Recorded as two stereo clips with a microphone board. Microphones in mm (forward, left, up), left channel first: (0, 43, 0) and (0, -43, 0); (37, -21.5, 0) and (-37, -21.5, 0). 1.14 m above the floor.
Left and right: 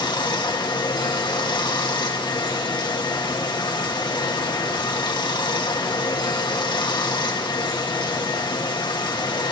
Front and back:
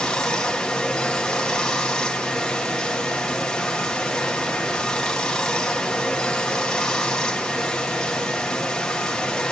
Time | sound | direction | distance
0.0 | running water | 75° left | 1.5 m